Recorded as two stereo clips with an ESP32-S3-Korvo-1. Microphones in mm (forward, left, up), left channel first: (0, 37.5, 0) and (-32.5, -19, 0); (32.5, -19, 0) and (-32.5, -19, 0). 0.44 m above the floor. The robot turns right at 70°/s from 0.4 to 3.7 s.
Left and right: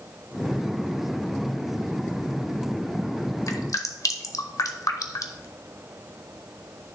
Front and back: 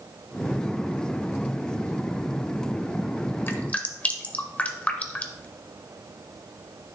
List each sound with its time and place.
3.5 s dripping: 50° left, 0.9 m; by 5.5 s 65° left, 0.9 m